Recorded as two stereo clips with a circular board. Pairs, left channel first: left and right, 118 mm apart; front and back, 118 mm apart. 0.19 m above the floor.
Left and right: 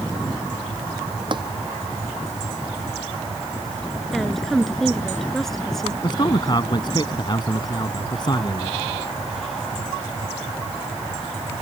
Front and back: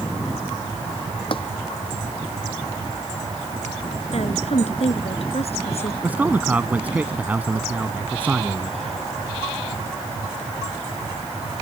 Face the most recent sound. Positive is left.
turn(degrees=110)